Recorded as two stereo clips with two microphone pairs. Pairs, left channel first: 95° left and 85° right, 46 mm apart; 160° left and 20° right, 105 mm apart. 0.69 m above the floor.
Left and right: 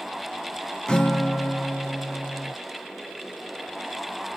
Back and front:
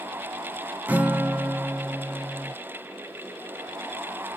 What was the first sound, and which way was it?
A guitar, 40° left.